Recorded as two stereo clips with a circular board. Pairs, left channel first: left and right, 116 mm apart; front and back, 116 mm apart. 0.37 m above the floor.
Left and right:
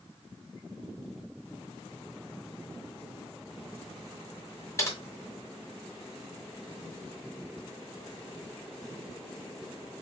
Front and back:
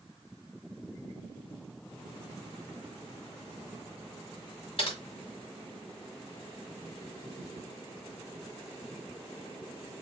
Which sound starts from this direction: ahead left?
Typing on a keyboard, at 4.8 s.